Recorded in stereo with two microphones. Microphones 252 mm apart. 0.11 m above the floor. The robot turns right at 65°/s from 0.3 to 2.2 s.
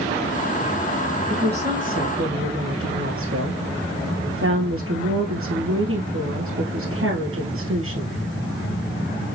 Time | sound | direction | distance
1.3 | a woman speaking | 145° right | 1.9 m